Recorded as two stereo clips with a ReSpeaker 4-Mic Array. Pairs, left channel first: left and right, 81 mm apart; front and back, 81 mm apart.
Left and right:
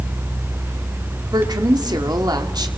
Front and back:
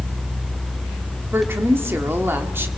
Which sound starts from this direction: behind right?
A woman speaking, at 1.3 s.